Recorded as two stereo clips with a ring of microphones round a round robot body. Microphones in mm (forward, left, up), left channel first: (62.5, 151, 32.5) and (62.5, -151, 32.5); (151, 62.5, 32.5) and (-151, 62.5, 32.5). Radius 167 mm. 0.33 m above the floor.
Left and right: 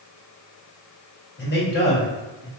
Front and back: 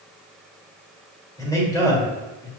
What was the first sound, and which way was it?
A man speaking, 70° left.